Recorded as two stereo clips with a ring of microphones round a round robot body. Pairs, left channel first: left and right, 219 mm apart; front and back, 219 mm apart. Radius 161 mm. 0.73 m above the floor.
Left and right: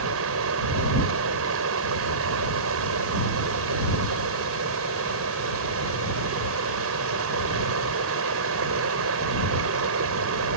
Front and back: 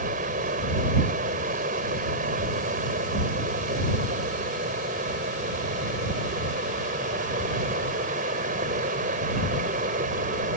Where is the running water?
115° right.